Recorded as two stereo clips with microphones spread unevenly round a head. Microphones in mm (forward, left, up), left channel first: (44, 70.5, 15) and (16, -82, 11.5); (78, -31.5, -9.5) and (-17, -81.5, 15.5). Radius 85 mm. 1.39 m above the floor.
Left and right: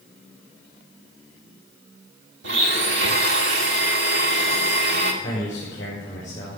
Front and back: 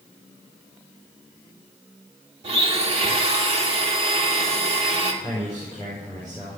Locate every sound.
2.4 s a blender: 130° right, 2.5 m
5.2 s a man speaking: 155° left, 5 m